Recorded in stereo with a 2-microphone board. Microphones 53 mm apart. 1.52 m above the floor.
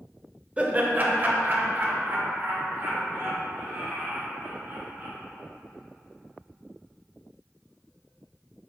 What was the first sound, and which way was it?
Laughter, 20° right (ahead or behind).